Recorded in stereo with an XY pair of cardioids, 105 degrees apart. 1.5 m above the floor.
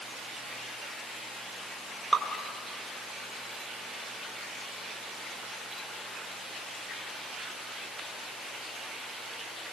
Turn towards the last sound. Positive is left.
turn(degrees=-10)